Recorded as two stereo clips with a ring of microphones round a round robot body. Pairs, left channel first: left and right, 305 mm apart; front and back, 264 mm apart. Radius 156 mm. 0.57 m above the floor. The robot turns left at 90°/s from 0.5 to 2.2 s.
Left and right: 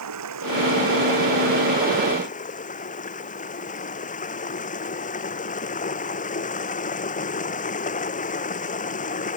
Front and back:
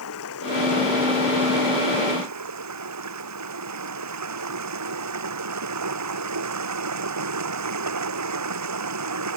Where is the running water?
50° right; by 9.4 s 160° left.